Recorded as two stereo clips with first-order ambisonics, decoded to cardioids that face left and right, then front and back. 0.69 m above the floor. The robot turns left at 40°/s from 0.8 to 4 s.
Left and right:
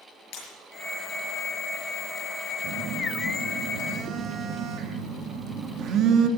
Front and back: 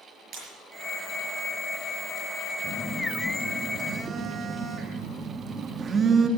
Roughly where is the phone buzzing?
Ahead right.